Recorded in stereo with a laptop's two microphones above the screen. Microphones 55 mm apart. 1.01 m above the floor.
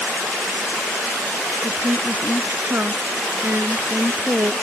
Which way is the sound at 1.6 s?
35° right (ahead or behind).